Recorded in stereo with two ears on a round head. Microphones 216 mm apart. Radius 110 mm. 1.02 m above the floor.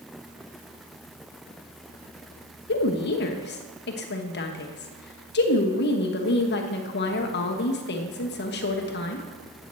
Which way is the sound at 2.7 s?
45° left (ahead or behind).